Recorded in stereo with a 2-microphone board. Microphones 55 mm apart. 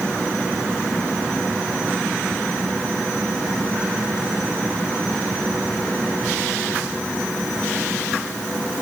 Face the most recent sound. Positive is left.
No sound to turn to.